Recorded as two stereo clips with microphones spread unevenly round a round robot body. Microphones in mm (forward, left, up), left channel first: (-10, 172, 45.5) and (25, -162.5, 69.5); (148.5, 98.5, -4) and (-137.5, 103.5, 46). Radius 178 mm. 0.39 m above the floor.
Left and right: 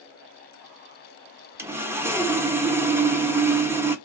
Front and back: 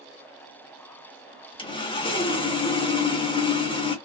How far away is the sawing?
About 0.6 m.